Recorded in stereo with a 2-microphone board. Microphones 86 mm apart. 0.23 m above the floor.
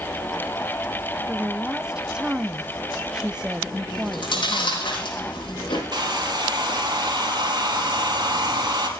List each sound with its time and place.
1.3 s a woman speaking: 10° right (ahead or behind), 1.0 m
3.9 s chewing: 70° left (ahead or behind), 7 m
5.9 s a hair dryer: 50° right (ahead or behind), 3.5 m